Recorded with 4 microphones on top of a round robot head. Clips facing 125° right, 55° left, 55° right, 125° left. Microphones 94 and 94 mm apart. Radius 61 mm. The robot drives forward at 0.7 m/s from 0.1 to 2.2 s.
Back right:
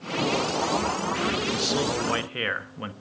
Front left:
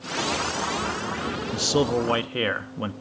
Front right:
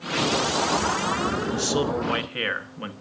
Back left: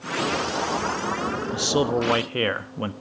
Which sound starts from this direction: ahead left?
A man speaking, at 1.5 s.